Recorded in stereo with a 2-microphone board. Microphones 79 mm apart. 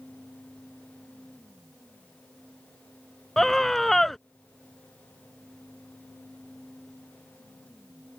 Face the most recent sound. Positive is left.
turn(degrees=5)  # may be behind; listen again after turning